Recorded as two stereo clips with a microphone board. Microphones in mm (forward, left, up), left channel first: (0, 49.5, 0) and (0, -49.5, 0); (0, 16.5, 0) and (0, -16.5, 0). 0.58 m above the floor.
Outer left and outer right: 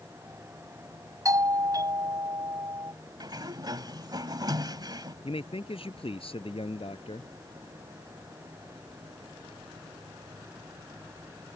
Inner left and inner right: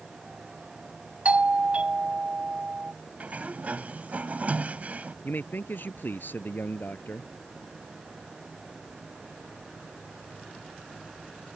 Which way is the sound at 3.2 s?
45° right (ahead or behind).